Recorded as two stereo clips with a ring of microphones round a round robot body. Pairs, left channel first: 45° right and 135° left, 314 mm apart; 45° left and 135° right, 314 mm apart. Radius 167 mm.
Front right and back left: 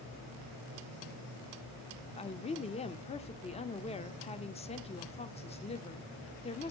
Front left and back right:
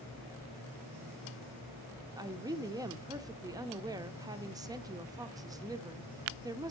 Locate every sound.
2.2 s a woman speaking: 75° right, 1.0 m